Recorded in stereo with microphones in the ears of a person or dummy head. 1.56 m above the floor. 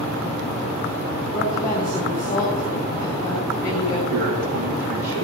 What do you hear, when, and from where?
1.3 s a woman speaking: 10° left (ahead or behind), 5.5 m
4.1 s a man speaking: 75° right (ahead or behind), 2 m